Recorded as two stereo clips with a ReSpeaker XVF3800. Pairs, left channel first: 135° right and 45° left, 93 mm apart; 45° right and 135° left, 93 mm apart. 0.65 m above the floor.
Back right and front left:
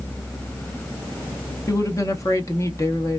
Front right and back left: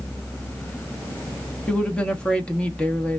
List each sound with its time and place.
1.7 s a woman speaking: 115° right, 0.8 m